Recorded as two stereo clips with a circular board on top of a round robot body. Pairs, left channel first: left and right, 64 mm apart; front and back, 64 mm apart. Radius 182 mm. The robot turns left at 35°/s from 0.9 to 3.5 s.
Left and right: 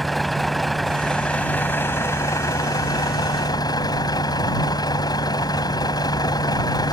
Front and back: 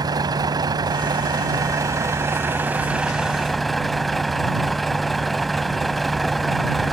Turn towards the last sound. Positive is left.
turn(degrees=90)